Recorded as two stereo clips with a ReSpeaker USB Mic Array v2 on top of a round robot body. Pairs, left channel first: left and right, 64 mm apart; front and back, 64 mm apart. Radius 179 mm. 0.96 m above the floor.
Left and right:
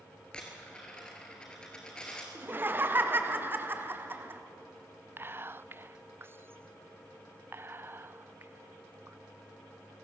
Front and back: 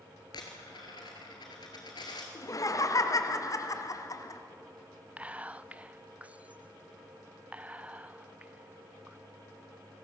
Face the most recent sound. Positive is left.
turn(degrees=-120)